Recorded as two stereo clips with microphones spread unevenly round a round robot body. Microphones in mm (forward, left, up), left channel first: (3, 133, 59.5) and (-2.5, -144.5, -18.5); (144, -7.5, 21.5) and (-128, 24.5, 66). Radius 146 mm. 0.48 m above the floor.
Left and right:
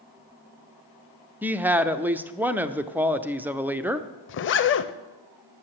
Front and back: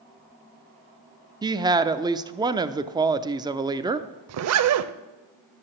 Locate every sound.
1.4 s a woman speaking: 110° right, 0.7 m
4.3 s a zipper: 140° left, 0.6 m